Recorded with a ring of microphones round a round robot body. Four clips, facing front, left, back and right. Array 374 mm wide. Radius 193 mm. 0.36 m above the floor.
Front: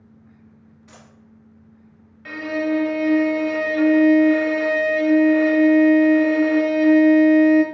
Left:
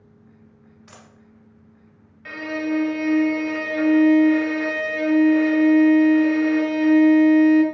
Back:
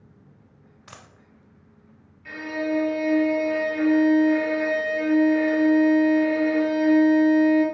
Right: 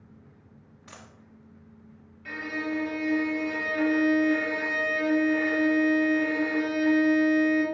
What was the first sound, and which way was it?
A dropped coin, 175° right.